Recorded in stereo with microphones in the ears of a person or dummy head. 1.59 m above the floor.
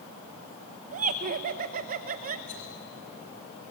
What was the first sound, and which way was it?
Laughter, 50° right (ahead or behind).